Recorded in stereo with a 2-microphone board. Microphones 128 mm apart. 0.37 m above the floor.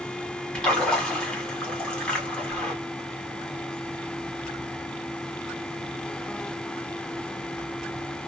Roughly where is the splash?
Centre.